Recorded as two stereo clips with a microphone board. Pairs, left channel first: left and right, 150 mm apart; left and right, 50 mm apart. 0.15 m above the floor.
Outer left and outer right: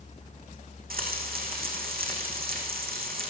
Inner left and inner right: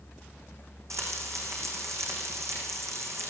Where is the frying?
85° right, 6 m.